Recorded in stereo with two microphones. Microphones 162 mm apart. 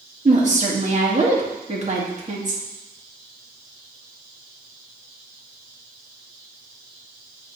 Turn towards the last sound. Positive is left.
turn(degrees=-50)  # may be behind; listen again after turning